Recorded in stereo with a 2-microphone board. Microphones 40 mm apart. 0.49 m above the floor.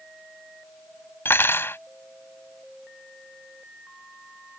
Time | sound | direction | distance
1.2 | cutlery clinking | 70° left (ahead or behind) | ?